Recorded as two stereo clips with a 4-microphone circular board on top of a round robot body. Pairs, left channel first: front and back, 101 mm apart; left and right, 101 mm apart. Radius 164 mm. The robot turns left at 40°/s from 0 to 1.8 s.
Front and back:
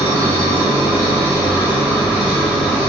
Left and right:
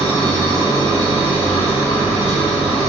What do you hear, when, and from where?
0.0 s an engine running: 170° left, 1.5 m; by 2.9 s 100° left, 1.5 m